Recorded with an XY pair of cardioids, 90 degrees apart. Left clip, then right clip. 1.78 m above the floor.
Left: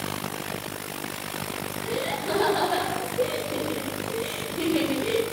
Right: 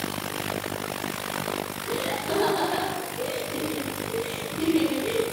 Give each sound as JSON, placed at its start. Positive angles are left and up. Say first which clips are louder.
{"t": 1.8, "sound": "laughter", "louder": "left 2 dB", "azimuth_deg": 60, "distance_m": 9.0}